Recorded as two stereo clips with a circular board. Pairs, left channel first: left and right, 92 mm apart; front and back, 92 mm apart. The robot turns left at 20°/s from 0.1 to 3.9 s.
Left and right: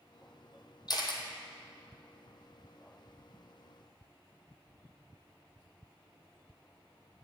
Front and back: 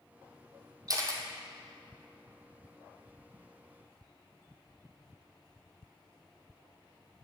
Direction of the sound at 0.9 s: 130° left.